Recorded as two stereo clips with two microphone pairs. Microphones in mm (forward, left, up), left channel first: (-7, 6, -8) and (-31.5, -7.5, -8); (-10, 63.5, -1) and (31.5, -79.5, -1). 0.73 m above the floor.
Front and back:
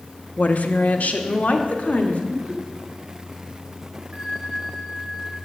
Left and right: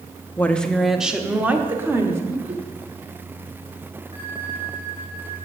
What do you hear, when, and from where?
0.4 s a woman speaking: 30° left, 0.9 m; by 2.2 s straight ahead, 2.0 m
2.3 s laughter: 100° right, 2.5 m
4.1 s a bell: 110° right, 6.5 m